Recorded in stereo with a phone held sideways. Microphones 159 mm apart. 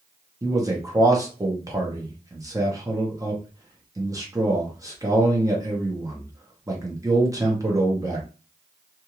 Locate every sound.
0.4 s a man speaking: 20° right (ahead or behind), 0.8 m